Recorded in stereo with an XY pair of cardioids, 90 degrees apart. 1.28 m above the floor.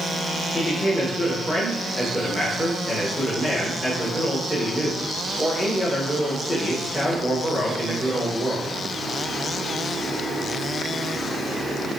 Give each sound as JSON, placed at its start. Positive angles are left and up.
{"t": 0.5, "sound": "a man speaking", "azimuth_deg": 15, "distance_m": 1.4}